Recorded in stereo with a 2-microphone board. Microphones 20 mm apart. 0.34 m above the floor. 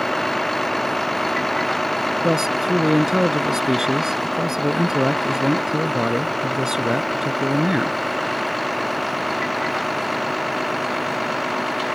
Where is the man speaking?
25° right (ahead or behind).